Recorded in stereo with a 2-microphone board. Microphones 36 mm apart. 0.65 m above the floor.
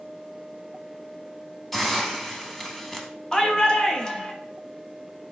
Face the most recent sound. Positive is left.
turn(degrees=20)  # may be behind; listen again after turning